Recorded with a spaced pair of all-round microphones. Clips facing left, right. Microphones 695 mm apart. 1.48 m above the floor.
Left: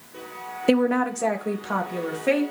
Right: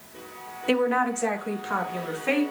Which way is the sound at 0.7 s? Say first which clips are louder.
Left 4 dB; 70° left (ahead or behind).